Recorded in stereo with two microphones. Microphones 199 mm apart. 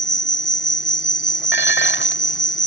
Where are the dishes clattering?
70° left (ahead or behind).